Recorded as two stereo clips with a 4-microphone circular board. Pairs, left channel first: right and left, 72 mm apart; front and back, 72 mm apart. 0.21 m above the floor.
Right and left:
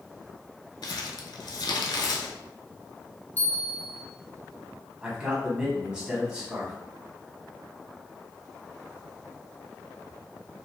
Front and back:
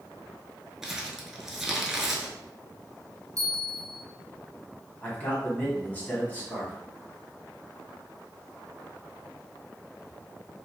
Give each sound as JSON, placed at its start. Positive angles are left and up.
{"t": 0.8, "sound": "crumpling", "azimuth_deg": -95, "distance_m": 0.6}
{"t": 3.4, "sound": "a bell", "azimuth_deg": -150, "distance_m": 0.6}
{"t": 5.0, "sound": "a man speaking", "azimuth_deg": 25, "distance_m": 1.1}